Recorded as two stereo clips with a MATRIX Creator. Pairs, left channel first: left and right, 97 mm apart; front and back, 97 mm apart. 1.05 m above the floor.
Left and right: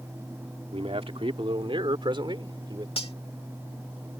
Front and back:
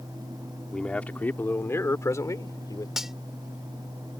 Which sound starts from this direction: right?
A man speaking, at 0.7 s.